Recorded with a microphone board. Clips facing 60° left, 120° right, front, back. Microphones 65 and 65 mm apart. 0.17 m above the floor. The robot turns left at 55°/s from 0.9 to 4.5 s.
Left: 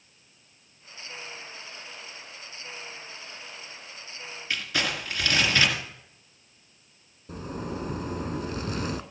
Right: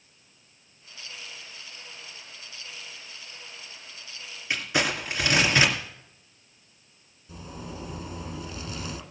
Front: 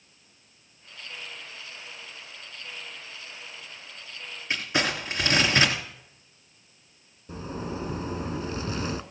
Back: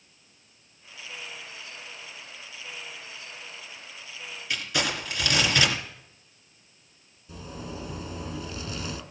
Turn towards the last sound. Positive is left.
turn(degrees=40)